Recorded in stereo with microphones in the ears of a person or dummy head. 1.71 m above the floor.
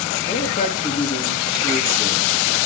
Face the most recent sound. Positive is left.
turn(degrees=20)  # may be behind; listen again after turning